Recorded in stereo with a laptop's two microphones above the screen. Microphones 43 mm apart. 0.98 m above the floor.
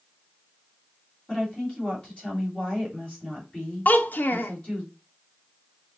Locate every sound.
1.3 s a woman speaking: 30° left (ahead or behind), 3 m
3.9 s a child speaking: 45° left (ahead or behind), 0.7 m